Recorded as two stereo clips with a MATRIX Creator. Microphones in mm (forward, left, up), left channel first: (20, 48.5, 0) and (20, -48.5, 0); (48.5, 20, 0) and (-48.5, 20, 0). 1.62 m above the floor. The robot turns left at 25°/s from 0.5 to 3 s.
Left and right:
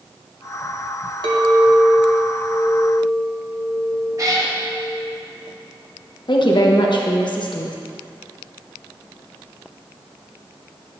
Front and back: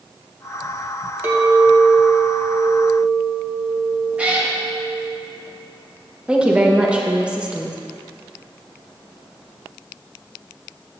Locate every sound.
1.2 s a clink: 115° right, 1.3 m; by 5.2 s 160° right, 1.3 m
4.2 s a cat meowing: 110° right, 1.2 m
6.3 s a woman speaking: 105° left, 1.0 m